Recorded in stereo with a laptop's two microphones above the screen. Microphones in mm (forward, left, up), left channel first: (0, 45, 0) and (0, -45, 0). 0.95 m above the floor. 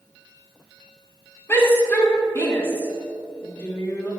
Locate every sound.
1.5 s a shout: 25° left (ahead or behind), 2.5 m; by 4.1 s 30° left (ahead or behind), 3.5 m